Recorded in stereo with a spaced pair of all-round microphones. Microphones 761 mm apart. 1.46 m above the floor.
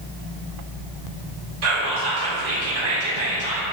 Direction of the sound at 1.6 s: 70° right (ahead or behind).